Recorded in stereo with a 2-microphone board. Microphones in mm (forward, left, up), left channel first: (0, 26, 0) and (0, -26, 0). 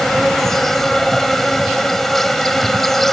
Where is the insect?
5° left (ahead or behind).